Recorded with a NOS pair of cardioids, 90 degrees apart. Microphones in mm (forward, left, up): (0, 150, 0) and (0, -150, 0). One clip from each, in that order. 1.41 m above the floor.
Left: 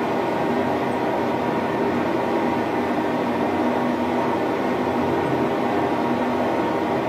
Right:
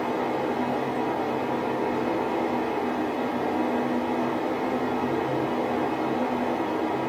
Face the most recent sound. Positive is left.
turn(degrees=50)